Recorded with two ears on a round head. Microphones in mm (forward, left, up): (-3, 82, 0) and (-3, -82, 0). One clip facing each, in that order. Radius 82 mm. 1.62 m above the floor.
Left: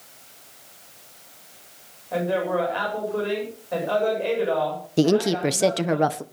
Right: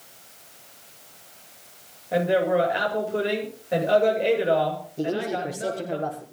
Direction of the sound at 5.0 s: 85° left.